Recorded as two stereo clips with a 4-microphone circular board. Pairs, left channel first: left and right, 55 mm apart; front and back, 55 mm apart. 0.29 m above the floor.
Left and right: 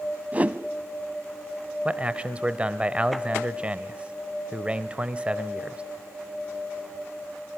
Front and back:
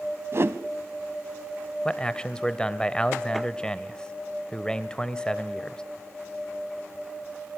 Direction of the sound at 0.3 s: 150° right.